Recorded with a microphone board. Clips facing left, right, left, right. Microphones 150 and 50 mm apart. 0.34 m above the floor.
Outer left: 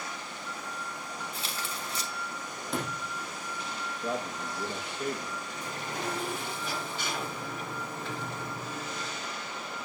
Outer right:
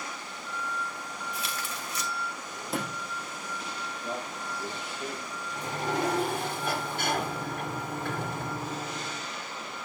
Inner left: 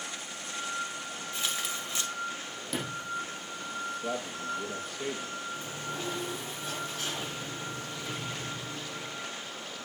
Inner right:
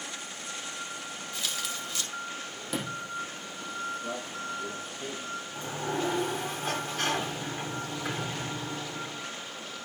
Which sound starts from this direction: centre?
A sliding door, at 2.7 s.